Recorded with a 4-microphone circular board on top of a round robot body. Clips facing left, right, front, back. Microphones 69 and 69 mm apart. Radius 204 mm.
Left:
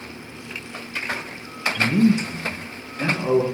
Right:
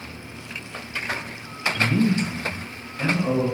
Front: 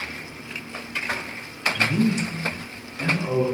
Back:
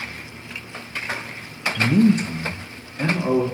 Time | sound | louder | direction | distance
1.8 | a man speaking | left 3 dB, back 6 dB | 155° left | 0.6 m